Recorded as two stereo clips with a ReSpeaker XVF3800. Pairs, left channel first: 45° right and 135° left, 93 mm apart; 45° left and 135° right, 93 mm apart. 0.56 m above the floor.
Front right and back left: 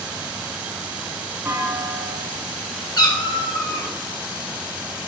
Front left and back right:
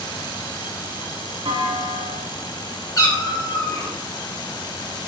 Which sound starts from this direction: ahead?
A cat meowing, at 3.0 s.